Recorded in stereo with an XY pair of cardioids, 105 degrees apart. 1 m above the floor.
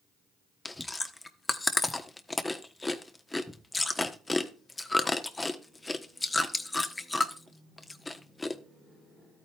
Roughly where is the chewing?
Ahead.